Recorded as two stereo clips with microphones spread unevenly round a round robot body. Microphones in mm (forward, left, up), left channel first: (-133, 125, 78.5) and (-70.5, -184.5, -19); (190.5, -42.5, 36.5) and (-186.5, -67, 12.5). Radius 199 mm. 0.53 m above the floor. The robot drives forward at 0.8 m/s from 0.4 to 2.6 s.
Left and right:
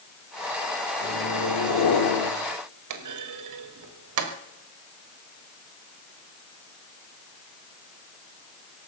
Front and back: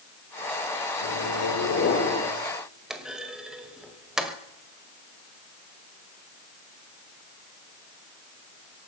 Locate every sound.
1.0 s a microwave: 45° left, 2 m; by 2.3 s 80° left, 1.7 m
2.9 s a clunk: 90° right, 1.6 m